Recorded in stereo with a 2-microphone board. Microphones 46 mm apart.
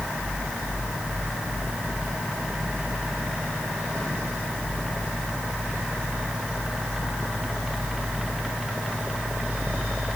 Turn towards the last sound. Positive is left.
No sound to turn to.